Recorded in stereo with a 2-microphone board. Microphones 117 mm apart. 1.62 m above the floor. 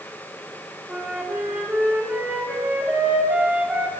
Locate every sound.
0.9 s a flute: 10° right (ahead or behind), 3 m